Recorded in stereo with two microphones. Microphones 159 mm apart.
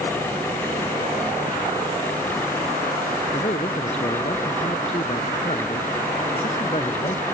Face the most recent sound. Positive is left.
turn(degrees=40)  # may be behind; listen again after turning